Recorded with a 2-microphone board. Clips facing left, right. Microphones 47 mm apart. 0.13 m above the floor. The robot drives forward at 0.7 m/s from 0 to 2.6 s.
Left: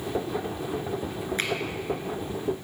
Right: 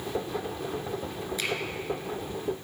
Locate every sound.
1.4 s a finger snap: 40° left (ahead or behind), 1.5 m